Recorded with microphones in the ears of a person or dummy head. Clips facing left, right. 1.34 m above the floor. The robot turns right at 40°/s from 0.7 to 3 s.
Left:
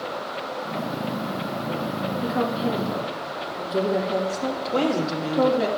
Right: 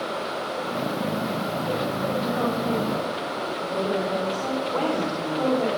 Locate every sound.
2.2 s a woman speaking: 55° left (ahead or behind), 2.5 m; by 5.7 s 80° left, 2.5 m
4.7 s a woman speaking: 50° left (ahead or behind), 1.7 m